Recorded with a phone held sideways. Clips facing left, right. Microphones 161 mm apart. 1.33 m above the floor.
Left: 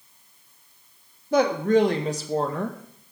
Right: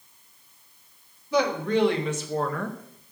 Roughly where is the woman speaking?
Left.